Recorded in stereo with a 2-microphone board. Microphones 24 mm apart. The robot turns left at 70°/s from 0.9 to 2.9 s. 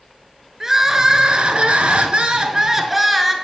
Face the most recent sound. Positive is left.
turn(degrees=-165)